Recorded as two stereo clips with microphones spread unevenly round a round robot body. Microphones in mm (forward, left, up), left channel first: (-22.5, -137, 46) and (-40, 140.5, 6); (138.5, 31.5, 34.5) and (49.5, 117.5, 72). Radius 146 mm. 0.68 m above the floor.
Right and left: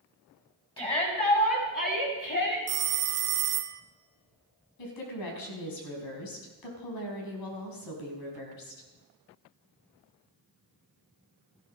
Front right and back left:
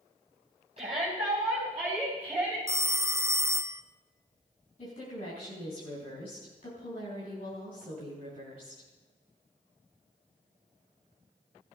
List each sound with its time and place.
0.8 s a shout: 160° right, 6 m; by 2.6 s 135° right, 6 m
2.7 s a phone ringing: 55° left, 0.8 m
4.8 s a woman speaking: 95° right, 5 m